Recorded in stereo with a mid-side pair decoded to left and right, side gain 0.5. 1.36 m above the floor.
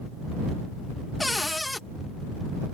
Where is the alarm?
I don't hear an alarm.